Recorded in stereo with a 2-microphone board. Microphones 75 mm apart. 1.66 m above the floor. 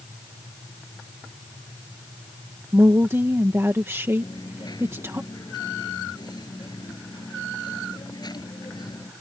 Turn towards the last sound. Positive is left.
turn(degrees=65)  # may be behind; listen again after turning